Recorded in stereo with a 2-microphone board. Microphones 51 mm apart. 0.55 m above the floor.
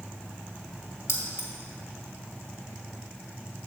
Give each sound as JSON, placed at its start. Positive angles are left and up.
{"t": 1.1, "sound": "keys jangling", "side_deg": 70, "distance_m": 1.6}